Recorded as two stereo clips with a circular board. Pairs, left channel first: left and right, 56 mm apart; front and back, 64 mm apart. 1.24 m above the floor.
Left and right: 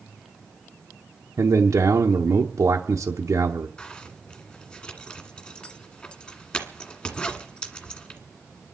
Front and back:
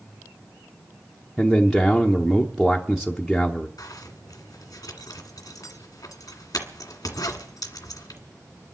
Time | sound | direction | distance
1.4 | a man speaking | 95° right | 0.9 m
3.8 | a zipper | 20° left | 1.8 m